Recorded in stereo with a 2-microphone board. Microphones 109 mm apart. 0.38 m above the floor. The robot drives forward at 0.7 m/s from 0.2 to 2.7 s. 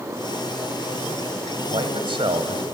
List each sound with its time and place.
1.7 s a man speaking: 55° right (ahead or behind), 2.5 m